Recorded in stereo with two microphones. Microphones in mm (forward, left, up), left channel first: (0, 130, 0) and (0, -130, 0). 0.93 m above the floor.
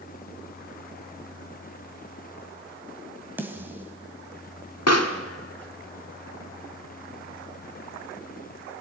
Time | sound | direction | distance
3.4 | a snare drum | 5° right (ahead or behind) | 2 m
4.9 | a pop | 70° left (ahead or behind) | 1.9 m